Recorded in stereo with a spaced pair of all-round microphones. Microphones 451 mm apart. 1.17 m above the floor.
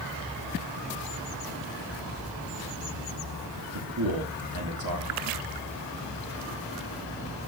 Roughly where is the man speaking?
Right.